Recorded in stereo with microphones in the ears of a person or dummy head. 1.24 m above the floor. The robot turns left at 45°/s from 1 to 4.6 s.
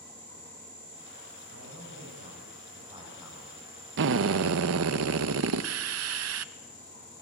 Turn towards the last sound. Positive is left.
turn(degrees=-80)